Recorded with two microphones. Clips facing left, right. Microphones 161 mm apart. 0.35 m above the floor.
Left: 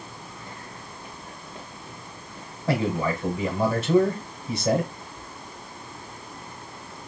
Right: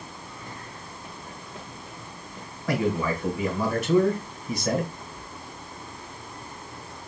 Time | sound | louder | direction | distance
2.7 | a man speaking | even | 30° left (ahead or behind) | 1.6 m